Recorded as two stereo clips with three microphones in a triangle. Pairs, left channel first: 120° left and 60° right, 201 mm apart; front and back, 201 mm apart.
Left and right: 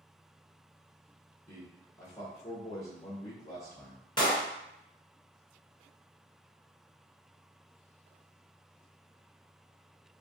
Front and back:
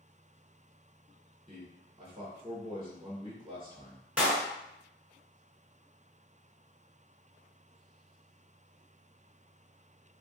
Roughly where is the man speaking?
Behind.